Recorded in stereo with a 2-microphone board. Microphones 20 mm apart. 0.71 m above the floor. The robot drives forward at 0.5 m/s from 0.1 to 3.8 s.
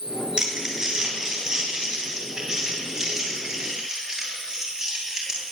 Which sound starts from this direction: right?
Crumpling, at 0.4 s.